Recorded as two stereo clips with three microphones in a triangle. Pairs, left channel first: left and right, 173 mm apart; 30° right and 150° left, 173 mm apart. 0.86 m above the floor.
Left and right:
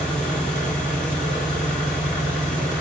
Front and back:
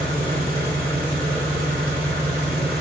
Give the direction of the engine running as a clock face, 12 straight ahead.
6 o'clock.